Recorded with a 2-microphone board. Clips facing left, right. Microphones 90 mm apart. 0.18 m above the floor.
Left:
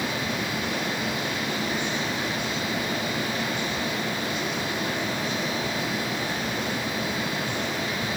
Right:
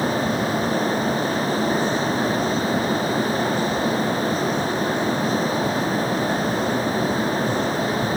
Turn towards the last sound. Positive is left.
No sound to turn to.